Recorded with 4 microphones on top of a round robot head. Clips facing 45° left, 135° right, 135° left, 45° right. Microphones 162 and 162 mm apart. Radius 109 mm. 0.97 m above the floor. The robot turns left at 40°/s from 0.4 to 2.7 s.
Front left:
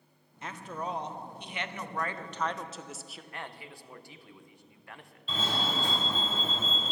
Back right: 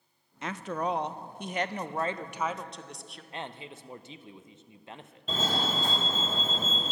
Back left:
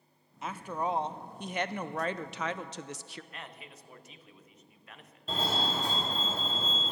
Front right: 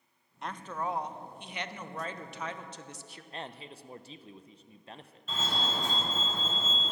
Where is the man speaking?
80° right, 0.6 m.